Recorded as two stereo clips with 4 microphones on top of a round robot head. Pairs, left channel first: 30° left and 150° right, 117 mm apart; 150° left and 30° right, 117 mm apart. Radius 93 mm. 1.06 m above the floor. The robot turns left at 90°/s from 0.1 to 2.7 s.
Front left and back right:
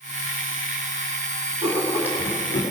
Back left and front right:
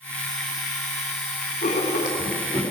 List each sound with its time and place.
1.6 s writing: 175° left, 2 m; by 2.6 s 85° left, 2 m